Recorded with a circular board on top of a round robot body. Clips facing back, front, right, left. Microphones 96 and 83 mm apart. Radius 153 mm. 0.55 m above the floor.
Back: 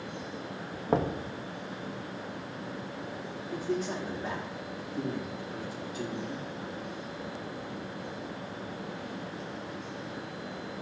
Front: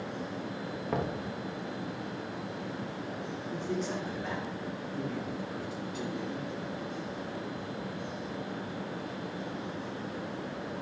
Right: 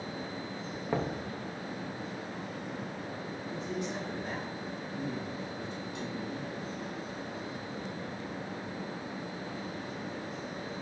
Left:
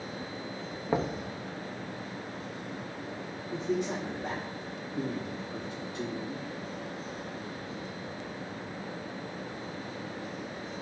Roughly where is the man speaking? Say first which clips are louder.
Back 2 dB, left 6 dB; left.